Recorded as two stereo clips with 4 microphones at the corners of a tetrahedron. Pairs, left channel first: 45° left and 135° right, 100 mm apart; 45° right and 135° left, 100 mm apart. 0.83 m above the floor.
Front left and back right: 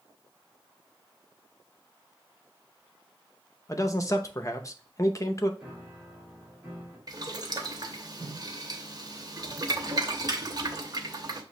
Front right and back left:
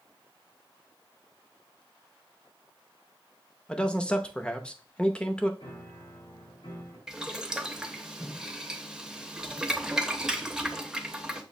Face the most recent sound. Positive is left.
turn(degrees=-145)